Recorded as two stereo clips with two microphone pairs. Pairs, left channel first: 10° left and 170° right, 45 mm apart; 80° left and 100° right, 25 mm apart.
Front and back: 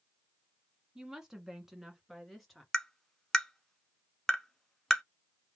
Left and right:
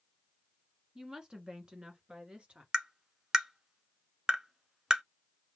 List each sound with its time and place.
0.9 s a woman speaking: 120° right, 1.5 m; by 2.6 s 80° right, 2 m
2.7 s tapping: 65° right, 0.9 m